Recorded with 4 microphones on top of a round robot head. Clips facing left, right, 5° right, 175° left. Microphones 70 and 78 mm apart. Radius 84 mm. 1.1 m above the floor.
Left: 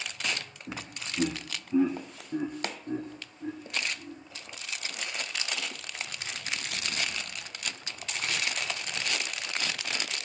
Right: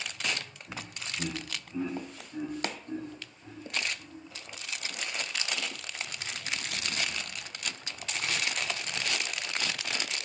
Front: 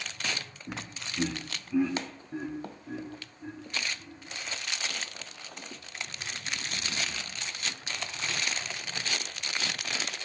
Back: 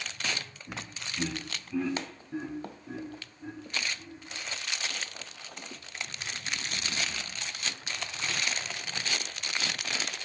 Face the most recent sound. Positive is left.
turn(degrees=90)